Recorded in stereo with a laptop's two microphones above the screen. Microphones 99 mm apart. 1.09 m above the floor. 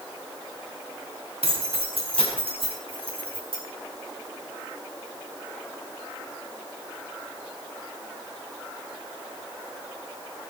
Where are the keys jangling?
75° right (ahead or behind), 4 m; by 3.6 s 65° right (ahead or behind), 6 m.